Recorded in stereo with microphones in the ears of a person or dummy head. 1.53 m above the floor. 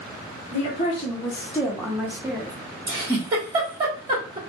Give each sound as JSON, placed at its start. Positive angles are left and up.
{"t": 0.5, "sound": "a woman speaking", "side_deg": 50, "distance_m": 0.7}
{"t": 2.9, "sound": "a giggle", "side_deg": -25, "distance_m": 1.3}